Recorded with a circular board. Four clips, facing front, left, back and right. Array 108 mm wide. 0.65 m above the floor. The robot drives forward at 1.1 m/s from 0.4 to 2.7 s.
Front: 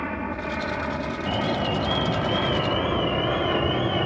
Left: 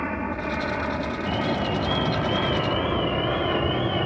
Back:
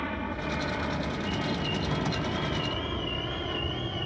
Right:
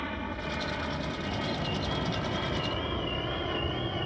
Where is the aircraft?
65° left; by 4.1 s 35° left.